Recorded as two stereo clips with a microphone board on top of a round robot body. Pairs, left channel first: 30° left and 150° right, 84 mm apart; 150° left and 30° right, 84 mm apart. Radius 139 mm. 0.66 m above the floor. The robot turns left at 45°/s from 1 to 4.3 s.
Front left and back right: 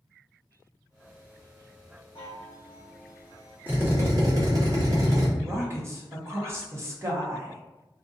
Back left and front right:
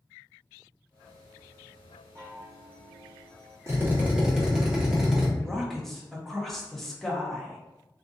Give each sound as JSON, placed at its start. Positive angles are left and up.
{"t": 2.1, "sound": "a chime", "azimuth_deg": 25, "distance_m": 0.5}
{"t": 3.7, "sound": "a drill", "azimuth_deg": -85, "distance_m": 1.2}
{"t": 5.4, "sound": "a woman speaking", "azimuth_deg": -125, "distance_m": 1.1}